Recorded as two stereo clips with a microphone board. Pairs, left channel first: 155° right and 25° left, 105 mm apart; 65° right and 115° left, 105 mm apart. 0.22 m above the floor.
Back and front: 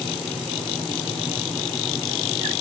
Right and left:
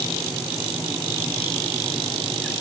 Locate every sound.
Only background noise.